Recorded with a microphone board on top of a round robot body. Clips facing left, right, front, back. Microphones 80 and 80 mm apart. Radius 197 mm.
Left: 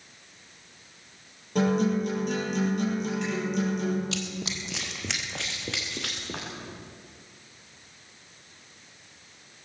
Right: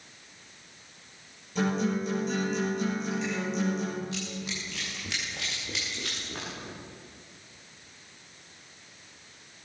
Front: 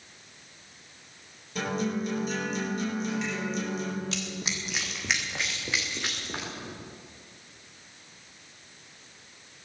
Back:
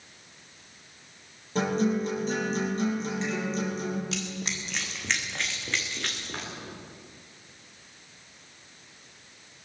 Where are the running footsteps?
90° left, 0.9 m; by 6.5 s 80° left, 4 m.